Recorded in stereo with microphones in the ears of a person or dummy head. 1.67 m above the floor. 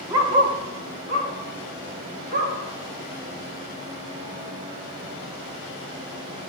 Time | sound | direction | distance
0.1 | a dog barking | 15° right (ahead or behind) | 1.1 m